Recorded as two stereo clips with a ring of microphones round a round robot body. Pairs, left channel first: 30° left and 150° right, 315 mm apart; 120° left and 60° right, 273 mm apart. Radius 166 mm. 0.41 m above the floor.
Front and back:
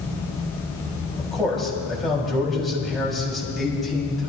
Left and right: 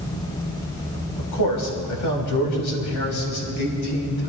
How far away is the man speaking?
About 2.5 m.